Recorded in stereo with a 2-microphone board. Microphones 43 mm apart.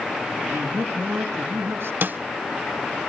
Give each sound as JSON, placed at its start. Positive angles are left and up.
{"t": 0.5, "sound": "a man speaking", "side_deg": -60, "distance_m": 5.0}
{"t": 2.0, "sound": "a snare drum", "side_deg": -50, "distance_m": 0.8}